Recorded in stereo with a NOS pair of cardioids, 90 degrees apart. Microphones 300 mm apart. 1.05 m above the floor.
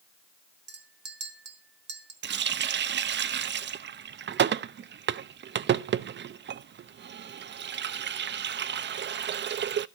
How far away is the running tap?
About 0.5 m.